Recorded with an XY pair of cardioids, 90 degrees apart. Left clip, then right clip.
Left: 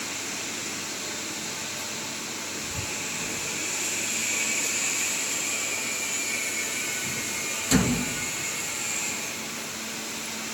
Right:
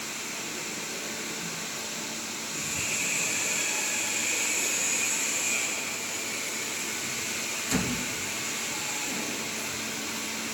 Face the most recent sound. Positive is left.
No sound to turn to.